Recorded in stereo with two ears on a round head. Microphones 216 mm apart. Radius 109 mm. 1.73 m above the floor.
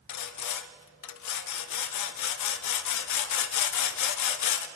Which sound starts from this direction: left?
Sawing, at 0.1 s.